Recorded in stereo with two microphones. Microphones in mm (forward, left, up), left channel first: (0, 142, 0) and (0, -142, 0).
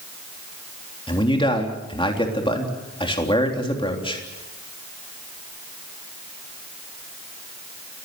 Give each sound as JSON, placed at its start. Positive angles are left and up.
{"t": 1.1, "sound": "a man speaking", "side_deg": 20, "distance_m": 3.5}